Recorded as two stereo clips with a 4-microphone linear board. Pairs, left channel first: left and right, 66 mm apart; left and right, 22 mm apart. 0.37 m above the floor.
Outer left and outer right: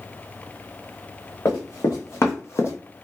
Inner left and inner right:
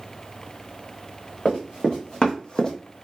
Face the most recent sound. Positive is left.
turn(degrees=40)  # may be behind; listen again after turning